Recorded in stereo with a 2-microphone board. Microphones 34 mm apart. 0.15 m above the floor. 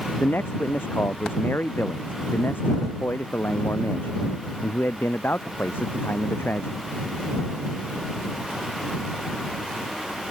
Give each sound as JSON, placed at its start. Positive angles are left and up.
{"t": 0.2, "sound": "a man speaking", "side_deg": 80}